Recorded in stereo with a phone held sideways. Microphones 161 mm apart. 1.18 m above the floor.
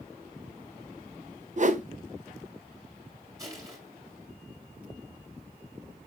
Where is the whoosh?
50° right (ahead or behind), 0.7 m.